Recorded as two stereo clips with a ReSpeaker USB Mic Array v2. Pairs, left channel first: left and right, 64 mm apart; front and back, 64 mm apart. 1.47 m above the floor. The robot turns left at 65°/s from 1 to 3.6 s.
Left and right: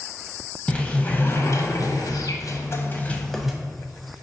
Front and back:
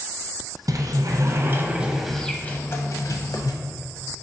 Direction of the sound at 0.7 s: 160° left.